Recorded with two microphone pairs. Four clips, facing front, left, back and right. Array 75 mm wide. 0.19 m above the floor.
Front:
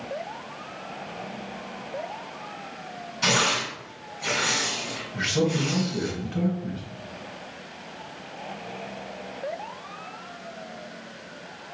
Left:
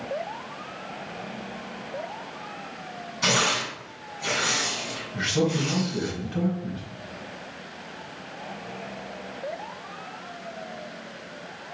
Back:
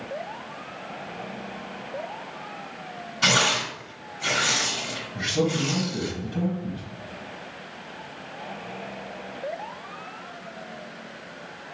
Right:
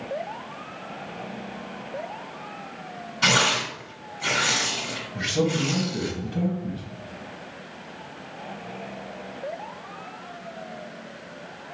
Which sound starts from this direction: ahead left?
A man speaking, at 5.1 s.